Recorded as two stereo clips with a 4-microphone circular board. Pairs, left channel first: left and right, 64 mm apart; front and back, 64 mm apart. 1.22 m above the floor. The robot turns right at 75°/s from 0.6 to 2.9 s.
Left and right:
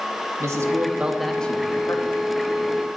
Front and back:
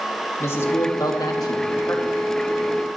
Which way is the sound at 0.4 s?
50° right.